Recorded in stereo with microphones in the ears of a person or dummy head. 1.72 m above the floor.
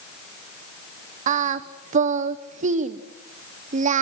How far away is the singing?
About 0.9 m.